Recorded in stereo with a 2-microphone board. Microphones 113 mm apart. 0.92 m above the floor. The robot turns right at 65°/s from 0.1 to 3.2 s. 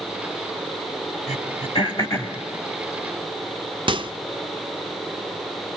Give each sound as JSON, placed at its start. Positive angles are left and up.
{"t": 1.3, "sound": "throat clearing", "side_deg": 80, "distance_m": 2.5}
{"t": 3.9, "sound": "a microwave", "side_deg": -45, "distance_m": 0.5}